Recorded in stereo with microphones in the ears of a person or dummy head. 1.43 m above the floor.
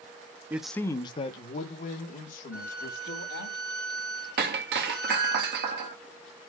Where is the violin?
40° left (ahead or behind), 4.5 m.